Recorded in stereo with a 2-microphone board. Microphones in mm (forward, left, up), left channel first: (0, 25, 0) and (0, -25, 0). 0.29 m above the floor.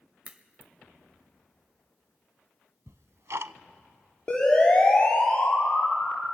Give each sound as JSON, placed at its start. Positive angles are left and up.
{"t": 0.2, "sound": "a crack", "side_deg": -25, "distance_m": 1.1}
{"t": 2.9, "sound": "ticking", "side_deg": -70, "distance_m": 0.5}
{"t": 4.3, "sound": "a siren", "side_deg": 15, "distance_m": 6.0}